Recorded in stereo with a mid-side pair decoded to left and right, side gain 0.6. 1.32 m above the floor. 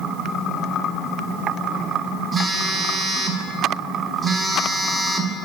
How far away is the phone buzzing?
About 0.7 m.